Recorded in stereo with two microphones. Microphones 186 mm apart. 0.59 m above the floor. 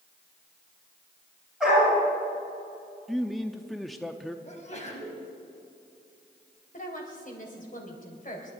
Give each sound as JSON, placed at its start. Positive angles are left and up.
{"t": 1.6, "sound": "a dog barking", "side_deg": -5, "distance_m": 7.5}
{"t": 3.1, "sound": "a man speaking", "side_deg": 0, "distance_m": 0.7}
{"t": 4.5, "sound": "a sneeze", "side_deg": 40, "distance_m": 3.5}
{"t": 6.7, "sound": "a woman speaking", "side_deg": 45, "distance_m": 3.0}